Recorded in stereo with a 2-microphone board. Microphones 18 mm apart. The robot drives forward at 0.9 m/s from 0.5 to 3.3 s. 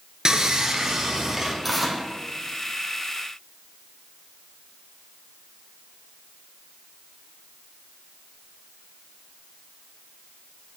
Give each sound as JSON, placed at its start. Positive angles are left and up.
{"t": 0.2, "sound": "sawing", "side_deg": -40, "distance_m": 1.5}
{"t": 1.6, "sound": "tearing paper", "side_deg": -5, "distance_m": 2.5}